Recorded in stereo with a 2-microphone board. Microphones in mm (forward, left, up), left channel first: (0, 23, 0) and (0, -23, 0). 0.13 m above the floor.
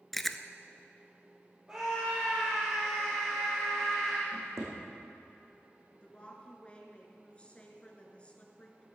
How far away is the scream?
About 3 m.